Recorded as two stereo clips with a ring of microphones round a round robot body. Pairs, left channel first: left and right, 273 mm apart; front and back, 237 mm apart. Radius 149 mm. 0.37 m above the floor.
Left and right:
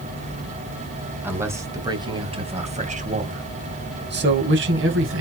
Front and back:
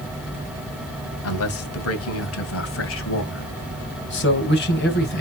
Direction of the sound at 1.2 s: 10° right.